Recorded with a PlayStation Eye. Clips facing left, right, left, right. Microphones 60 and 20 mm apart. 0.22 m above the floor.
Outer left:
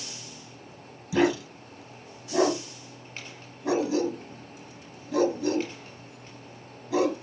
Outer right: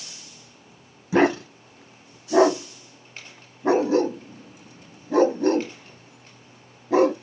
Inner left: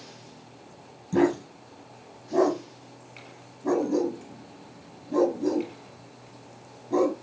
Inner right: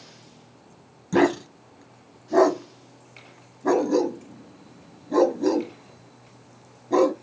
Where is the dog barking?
45° right (ahead or behind), 0.6 m.